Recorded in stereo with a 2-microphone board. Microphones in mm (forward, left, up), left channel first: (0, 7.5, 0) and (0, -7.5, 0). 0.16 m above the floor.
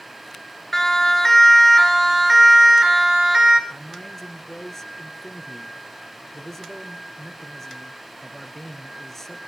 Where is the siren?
20° left (ahead or behind), 2 m; by 3.6 s 35° right (ahead or behind), 2.5 m.